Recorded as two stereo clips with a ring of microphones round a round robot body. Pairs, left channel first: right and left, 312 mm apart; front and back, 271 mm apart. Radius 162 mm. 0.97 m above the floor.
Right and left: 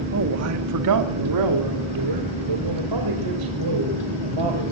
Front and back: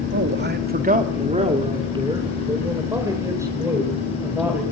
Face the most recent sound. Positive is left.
turn(degrees=95)